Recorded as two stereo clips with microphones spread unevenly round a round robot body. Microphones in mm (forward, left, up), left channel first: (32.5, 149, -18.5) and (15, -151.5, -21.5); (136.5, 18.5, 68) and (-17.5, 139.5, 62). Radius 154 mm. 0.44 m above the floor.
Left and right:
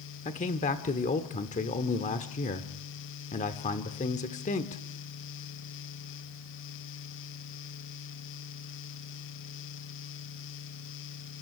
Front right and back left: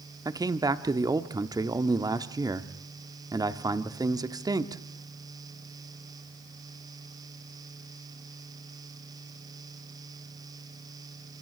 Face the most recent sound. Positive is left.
turn(degrees=110)